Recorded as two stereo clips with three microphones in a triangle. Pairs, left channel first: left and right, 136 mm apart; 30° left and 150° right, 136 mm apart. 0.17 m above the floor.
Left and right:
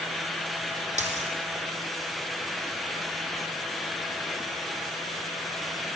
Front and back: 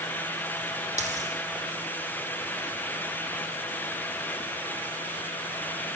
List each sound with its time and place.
1.0 s a dropped coin: 120° right, 3.5 m